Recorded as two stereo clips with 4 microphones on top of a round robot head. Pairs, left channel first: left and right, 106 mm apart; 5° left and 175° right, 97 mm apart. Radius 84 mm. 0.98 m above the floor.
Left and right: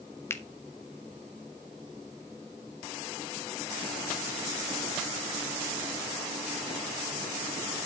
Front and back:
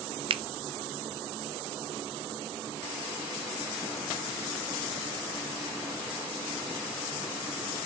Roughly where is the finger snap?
Behind.